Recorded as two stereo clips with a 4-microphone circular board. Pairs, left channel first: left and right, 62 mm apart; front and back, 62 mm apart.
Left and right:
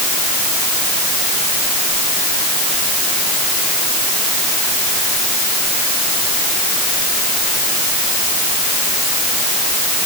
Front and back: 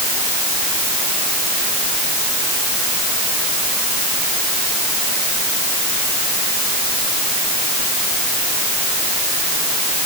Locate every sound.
Only background noise.